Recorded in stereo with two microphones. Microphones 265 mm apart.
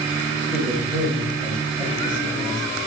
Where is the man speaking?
5° left (ahead or behind), 5.5 m.